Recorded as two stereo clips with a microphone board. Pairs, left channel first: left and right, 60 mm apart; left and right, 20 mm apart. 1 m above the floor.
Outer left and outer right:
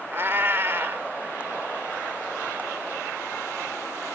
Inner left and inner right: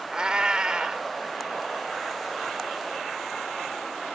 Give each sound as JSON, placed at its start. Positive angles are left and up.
{"t": 0.1, "sound": "a cat meowing", "side_deg": -45}